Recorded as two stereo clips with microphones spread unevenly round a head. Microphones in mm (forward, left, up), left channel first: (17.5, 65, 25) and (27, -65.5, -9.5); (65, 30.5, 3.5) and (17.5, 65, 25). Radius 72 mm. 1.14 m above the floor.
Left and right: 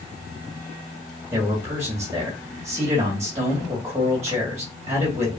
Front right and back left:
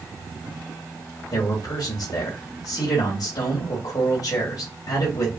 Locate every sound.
1.3 s a man speaking: 15° right, 2 m